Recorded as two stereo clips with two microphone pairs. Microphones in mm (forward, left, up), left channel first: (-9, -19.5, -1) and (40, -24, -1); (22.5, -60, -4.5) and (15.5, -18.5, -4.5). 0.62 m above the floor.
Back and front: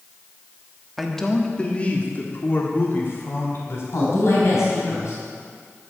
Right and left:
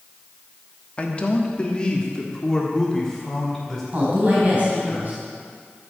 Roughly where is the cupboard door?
No cupboard door in this recording.